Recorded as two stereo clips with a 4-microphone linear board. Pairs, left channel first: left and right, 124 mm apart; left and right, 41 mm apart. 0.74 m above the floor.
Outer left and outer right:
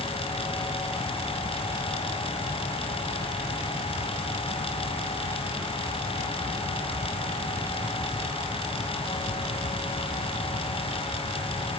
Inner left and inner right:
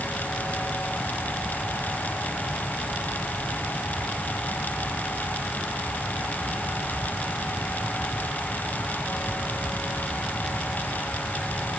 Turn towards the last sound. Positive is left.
No sound to turn to.